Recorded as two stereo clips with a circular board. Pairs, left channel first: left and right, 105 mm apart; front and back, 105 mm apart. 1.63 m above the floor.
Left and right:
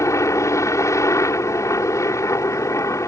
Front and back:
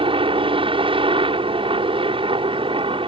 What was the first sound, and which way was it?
A helicopter, 150° left.